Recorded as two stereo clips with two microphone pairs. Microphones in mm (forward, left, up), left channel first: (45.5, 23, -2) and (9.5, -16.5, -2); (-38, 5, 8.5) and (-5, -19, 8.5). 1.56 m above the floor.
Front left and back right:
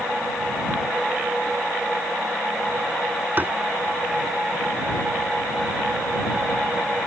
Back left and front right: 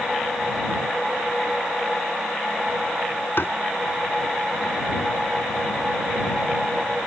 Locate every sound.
3.4 s tapping: 175° left